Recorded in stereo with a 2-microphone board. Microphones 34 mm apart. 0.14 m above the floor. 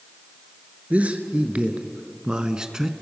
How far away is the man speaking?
About 1.8 m.